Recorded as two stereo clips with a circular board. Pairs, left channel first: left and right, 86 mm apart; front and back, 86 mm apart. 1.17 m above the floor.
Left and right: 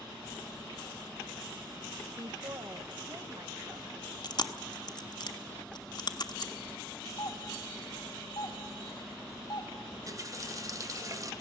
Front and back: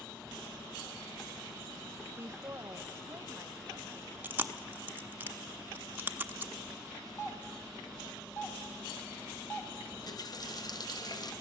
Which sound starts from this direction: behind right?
A woman speaking, at 2.2 s.